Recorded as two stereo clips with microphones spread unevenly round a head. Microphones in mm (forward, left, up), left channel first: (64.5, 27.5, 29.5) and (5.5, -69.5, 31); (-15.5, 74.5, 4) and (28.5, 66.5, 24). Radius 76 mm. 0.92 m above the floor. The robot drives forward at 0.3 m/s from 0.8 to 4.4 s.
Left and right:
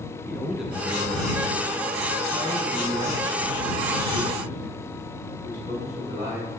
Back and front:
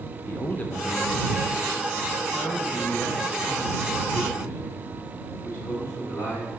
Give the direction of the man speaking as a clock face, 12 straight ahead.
7 o'clock.